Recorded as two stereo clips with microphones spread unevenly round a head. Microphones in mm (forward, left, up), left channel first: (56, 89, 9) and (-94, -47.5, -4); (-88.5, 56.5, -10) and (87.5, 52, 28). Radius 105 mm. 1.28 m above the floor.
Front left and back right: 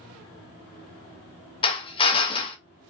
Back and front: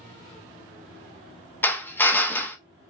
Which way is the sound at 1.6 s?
90° left.